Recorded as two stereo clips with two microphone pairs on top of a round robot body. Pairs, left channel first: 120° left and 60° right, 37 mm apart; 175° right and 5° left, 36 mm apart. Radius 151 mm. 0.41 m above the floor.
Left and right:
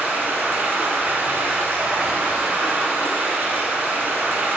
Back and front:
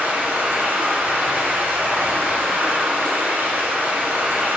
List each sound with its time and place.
0.0 s running water: 30° right, 1.3 m